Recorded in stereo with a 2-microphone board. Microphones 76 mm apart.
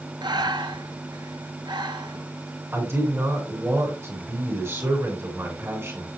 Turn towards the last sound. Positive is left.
turn(degrees=-30)  # may be behind; listen again after turning